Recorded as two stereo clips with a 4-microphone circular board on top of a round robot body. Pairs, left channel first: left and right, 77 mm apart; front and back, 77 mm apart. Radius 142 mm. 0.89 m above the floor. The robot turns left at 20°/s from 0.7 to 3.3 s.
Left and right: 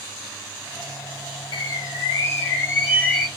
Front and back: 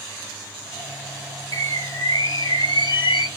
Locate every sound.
1.5 s a bird: 50° left, 1.4 m; by 3.3 s 15° left, 1.4 m